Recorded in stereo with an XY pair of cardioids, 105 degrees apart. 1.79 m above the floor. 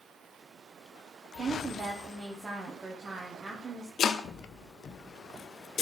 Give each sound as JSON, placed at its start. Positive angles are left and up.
{"t": 1.4, "sound": "a woman speaking", "azimuth_deg": -30, "distance_m": 1.4}
{"t": 4.0, "sound": "chopping", "azimuth_deg": 55, "distance_m": 0.6}